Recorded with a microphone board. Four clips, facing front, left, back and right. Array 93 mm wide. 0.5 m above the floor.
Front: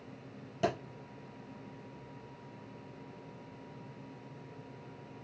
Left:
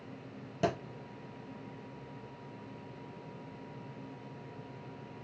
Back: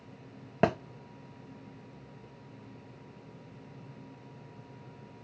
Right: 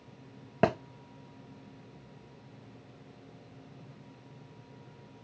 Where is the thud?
135° right, 0.5 m.